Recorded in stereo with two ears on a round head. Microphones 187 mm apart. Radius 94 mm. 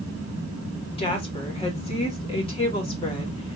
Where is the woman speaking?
25° left (ahead or behind), 2 m.